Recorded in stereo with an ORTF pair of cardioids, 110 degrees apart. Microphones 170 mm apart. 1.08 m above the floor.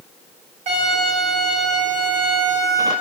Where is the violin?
45° right, 0.9 m.